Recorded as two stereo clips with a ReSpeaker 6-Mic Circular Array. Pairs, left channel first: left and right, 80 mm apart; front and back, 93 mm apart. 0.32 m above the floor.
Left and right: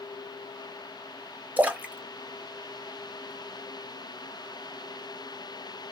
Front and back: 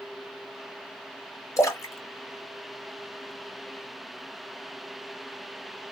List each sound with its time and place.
1.6 s a splash: 30° right, 0.8 m